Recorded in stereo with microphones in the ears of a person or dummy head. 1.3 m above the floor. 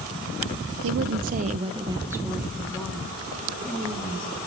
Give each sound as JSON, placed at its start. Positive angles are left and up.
{"t": 0.8, "sound": "a woman speaking", "side_deg": -70, "distance_m": 0.6}